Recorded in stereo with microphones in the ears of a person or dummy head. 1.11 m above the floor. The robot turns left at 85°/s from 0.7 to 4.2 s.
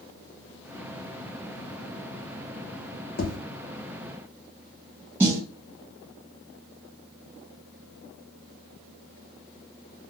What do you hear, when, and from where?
3.2 s tapping: 50° left (ahead or behind), 1.1 m; by 3.4 s 65° left (ahead or behind), 1.1 m
5.2 s a snare drum: 10° right (ahead or behind), 0.7 m